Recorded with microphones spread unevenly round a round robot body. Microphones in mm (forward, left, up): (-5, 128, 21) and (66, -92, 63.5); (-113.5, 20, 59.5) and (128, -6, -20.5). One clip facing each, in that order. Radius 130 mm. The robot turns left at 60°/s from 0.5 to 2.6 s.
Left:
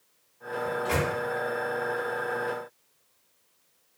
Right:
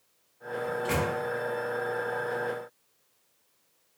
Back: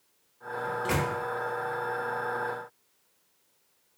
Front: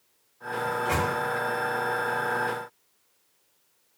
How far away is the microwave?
About 0.7 m.